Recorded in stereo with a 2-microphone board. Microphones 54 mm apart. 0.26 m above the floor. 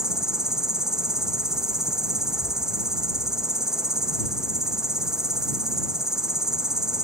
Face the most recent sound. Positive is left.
turn(degrees=-10)  # may be behind; listen again after turning